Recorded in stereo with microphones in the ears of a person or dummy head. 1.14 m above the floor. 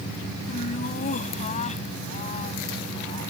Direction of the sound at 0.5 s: 45° left (ahead or behind).